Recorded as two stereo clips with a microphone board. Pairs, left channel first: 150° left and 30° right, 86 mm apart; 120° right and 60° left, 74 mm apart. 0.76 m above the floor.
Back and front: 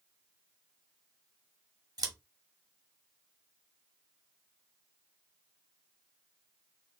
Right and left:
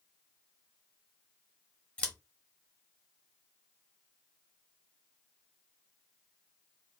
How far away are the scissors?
About 1.1 m.